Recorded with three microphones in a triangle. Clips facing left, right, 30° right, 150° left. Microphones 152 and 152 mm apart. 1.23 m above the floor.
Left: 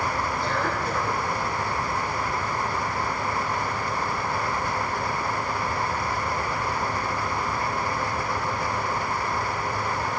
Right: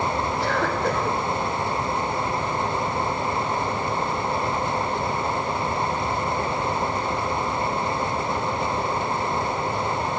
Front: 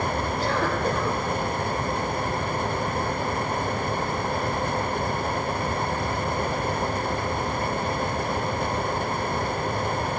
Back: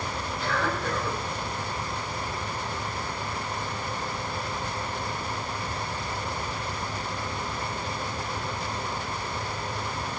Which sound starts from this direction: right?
A cough, at 0.4 s.